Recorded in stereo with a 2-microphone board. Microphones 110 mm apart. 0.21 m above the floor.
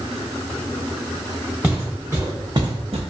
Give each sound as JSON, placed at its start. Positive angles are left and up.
{"t": 1.6, "sound": "footsteps", "side_deg": -10, "distance_m": 1.3}